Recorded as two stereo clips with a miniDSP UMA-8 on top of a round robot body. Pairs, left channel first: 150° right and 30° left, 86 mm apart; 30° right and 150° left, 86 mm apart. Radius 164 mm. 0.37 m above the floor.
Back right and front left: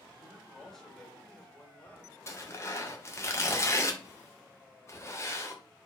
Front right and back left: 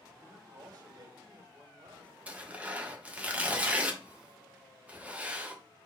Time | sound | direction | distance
0.2 | a man speaking | 120° left | 2.5 m
2.3 | tearing paper | 150° right | 1.7 m